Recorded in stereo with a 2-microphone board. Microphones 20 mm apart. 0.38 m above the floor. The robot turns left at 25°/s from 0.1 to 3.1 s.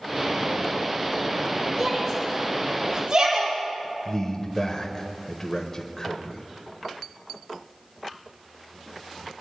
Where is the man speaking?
25° left (ahead or behind), 1.1 m.